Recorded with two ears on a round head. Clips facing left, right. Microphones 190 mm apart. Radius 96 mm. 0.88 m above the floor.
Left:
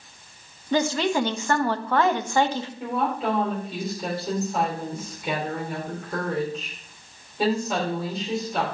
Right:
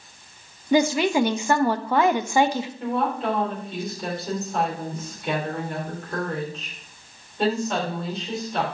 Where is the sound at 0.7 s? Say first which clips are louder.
Right 3 dB; 10° right (ahead or behind), 0.6 m.